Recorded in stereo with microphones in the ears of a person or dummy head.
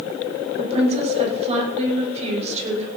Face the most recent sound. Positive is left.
turn(degrees=-35)  # may be behind; listen again after turning